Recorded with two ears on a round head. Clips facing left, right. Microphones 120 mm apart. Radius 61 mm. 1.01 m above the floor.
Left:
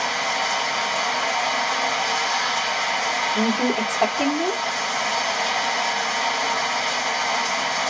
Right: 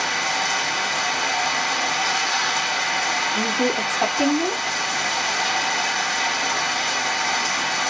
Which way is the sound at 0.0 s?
55° right (ahead or behind).